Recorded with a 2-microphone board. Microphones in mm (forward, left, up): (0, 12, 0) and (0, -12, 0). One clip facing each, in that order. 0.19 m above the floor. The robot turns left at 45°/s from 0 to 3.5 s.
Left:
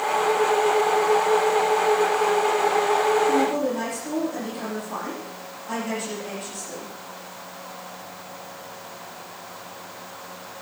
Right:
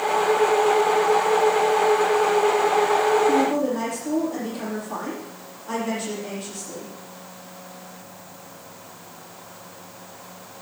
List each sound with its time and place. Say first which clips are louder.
3.3 s a woman speaking: right 1 dB; 15° right (ahead or behind), 8.5 m; by 6.9 s 5° right (ahead or behind), 8.5 m